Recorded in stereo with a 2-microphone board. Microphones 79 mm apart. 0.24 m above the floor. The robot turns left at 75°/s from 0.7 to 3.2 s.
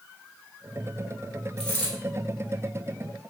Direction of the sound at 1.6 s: 5° left (ahead or behind).